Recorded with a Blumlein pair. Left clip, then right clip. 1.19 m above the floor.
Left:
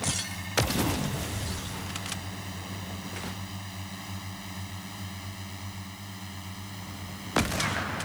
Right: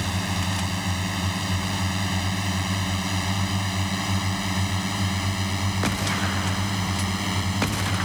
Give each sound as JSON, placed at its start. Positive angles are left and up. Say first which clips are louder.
{"t": 0.0, "sound": "a drone", "louder": "right 5 dB", "azimuth_deg": -60}